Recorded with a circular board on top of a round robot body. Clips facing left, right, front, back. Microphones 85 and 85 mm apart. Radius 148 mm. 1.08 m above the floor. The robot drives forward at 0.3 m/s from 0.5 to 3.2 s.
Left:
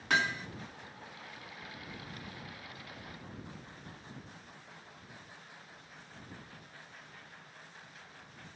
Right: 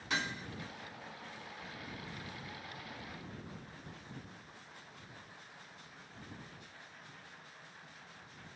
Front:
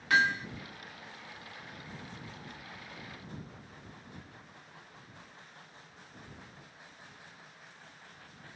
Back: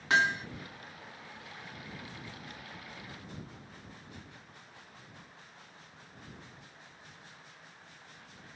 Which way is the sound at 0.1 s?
115° left.